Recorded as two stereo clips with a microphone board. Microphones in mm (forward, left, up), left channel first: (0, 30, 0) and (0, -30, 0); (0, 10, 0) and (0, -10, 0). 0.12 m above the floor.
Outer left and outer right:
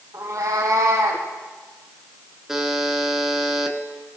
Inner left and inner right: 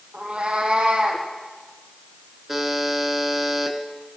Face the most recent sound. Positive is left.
turn(degrees=-10)  # may be behind; listen again after turning